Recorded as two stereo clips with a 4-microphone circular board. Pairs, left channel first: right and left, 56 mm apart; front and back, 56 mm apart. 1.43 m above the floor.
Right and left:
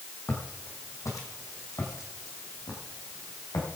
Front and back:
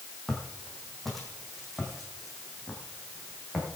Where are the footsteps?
85° right, 3 m; by 3.7 s 95° right, 5 m.